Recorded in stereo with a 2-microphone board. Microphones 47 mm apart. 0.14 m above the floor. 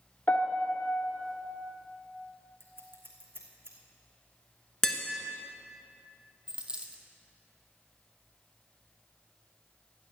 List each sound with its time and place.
0.3 s a piano: 35° left (ahead or behind), 1.5 m
2.6 s scissors: 55° right (ahead or behind), 3 m
4.8 s tapping: 10° left (ahead or behind), 1.5 m
6.5 s a dropped coin: 20° right (ahead or behind), 1.3 m